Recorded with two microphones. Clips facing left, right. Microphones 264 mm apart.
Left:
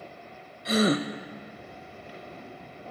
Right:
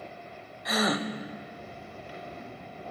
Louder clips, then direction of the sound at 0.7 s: Left 5 dB; 30° left (ahead or behind).